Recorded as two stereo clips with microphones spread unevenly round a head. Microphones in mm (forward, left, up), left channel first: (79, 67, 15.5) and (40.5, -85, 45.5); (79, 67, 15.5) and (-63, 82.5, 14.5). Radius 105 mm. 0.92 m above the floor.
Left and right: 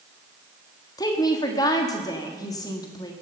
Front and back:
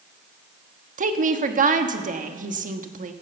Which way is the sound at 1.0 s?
145° left.